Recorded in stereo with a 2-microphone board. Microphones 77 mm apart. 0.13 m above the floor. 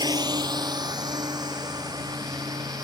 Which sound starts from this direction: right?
A drone, at 0.0 s.